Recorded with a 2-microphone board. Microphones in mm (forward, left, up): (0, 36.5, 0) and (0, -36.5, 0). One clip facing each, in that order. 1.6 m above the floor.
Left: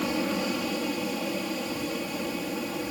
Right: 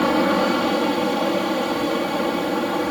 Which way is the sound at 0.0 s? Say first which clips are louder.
Right 10 dB; 65° right (ahead or behind).